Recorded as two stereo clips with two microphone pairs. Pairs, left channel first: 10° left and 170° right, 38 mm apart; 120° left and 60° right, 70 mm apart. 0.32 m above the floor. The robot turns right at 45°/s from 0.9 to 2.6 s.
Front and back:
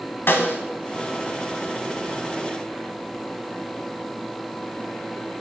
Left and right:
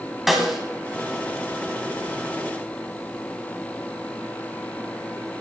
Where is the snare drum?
30° left, 1.1 m.